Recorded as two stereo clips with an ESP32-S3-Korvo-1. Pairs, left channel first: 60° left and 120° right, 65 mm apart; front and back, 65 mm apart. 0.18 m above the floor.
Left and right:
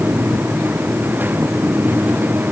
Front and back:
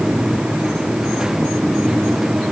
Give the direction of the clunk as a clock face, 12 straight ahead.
No clunk in this recording.